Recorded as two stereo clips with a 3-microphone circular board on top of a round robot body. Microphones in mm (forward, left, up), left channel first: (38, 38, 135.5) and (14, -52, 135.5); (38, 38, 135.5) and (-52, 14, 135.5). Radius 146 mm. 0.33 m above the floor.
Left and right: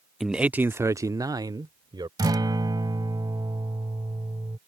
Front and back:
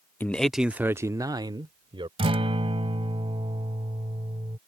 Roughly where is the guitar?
Behind right.